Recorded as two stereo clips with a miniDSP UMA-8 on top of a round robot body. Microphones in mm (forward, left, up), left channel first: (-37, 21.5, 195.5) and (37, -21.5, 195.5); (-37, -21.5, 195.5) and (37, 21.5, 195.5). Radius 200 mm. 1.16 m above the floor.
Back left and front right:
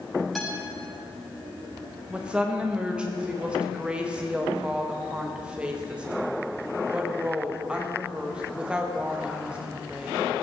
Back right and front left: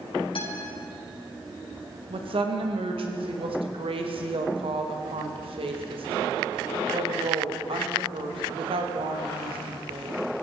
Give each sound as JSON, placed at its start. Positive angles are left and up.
{"t": 0.3, "sound": "a guitar", "azimuth_deg": -125, "distance_m": 6.0}
{"t": 2.1, "sound": "a woman speaking", "azimuth_deg": 50, "distance_m": 1.6}